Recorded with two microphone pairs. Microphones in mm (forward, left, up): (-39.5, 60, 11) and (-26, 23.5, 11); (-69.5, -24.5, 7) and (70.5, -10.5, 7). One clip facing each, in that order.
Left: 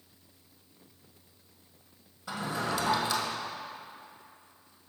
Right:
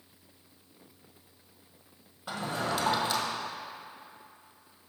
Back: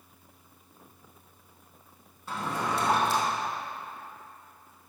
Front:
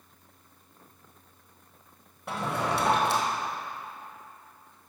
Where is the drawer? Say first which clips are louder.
Even, front 2 dB; 15° right, 1.5 m.